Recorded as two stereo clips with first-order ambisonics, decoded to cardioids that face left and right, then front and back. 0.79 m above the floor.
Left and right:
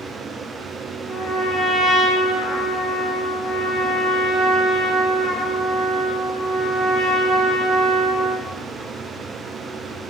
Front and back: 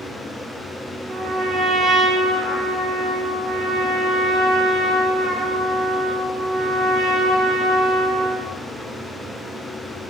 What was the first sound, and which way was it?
A trumpet, 135° left.